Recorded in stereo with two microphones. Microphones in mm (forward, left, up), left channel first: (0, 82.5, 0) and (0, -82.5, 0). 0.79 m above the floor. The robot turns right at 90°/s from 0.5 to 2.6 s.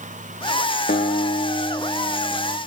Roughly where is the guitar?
Left.